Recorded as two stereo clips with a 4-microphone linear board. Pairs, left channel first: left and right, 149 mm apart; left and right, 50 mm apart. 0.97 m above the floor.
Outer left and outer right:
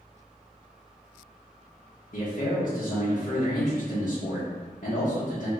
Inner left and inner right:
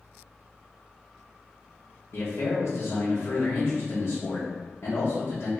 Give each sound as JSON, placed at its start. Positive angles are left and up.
{"t": 2.1, "sound": "a man speaking", "side_deg": 65, "distance_m": 1.0}